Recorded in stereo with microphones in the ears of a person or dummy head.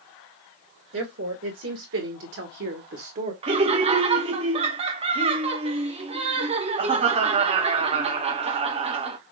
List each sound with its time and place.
0.9 s a woman speaking: 75° right (ahead or behind), 2.0 m; by 3.3 s 35° right (ahead or behind), 0.9 m
3.4 s laughter: 30° right (ahead or behind), 0.7 m